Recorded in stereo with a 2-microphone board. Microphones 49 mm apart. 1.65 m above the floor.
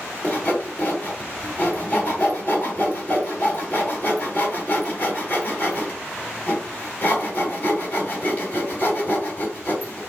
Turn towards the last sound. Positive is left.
turn(degrees=40)  # may be behind; listen again after turning